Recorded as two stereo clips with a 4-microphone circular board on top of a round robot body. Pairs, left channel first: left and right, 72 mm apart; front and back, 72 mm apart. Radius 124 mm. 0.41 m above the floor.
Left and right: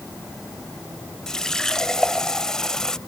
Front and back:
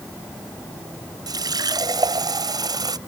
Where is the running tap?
170° left.